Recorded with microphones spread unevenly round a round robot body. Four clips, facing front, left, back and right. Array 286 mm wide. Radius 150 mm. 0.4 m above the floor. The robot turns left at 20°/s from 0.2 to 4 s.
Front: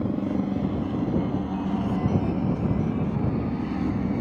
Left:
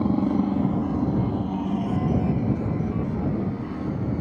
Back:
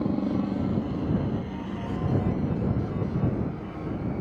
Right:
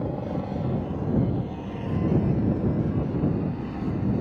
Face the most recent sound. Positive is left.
turn(degrees=5)